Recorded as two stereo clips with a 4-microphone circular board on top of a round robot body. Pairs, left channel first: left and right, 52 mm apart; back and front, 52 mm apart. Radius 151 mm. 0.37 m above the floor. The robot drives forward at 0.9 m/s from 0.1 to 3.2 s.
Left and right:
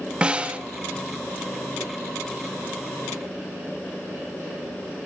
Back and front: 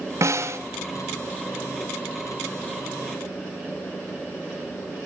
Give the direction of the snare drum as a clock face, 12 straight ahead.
1 o'clock.